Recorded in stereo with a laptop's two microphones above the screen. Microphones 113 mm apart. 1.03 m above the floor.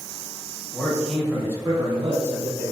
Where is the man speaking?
20° left (ahead or behind), 0.6 m; by 2.7 s 60° right (ahead or behind), 0.9 m.